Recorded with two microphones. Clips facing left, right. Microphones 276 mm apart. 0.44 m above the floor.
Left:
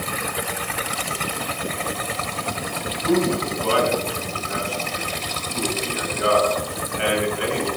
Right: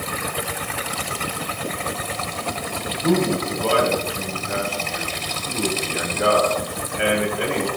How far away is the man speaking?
About 3 m.